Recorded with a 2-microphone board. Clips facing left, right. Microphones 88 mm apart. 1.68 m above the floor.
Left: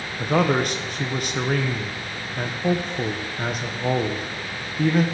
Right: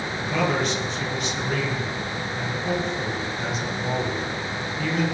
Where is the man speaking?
50° left (ahead or behind), 1.4 m.